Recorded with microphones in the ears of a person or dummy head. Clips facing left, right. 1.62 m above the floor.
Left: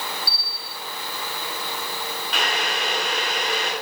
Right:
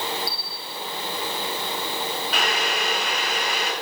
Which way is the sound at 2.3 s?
5° right (ahead or behind).